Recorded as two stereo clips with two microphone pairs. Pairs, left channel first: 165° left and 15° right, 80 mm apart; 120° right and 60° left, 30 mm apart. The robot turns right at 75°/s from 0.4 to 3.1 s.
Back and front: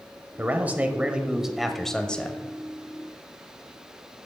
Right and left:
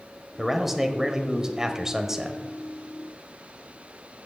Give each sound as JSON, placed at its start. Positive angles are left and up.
{"t": 0.4, "sound": "a man speaking", "azimuth_deg": -20, "distance_m": 1.1}